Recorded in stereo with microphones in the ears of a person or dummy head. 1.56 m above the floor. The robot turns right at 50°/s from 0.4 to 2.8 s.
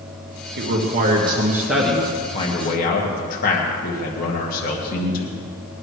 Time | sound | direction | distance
0.6 | a man speaking | 60° right | 2 m